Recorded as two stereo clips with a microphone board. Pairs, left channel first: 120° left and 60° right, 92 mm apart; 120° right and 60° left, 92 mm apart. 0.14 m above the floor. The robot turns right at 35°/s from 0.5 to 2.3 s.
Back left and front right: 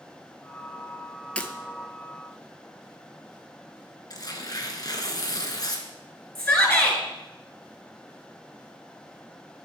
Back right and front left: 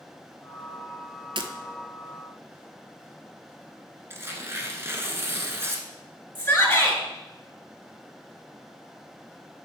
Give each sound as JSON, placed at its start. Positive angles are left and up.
{"t": 1.4, "sound": "breaking glass", "azimuth_deg": 45, "distance_m": 0.7}
{"t": 4.1, "sound": "tearing paper", "azimuth_deg": 110, "distance_m": 1.0}
{"t": 6.3, "sound": "a shout", "azimuth_deg": 180, "distance_m": 2.5}